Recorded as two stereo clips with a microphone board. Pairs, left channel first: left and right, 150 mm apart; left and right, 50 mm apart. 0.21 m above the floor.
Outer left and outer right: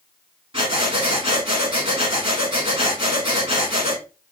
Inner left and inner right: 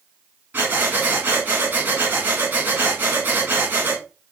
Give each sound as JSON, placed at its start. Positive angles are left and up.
{"t": 0.5, "sound": "breathing", "side_deg": -35, "distance_m": 1.2}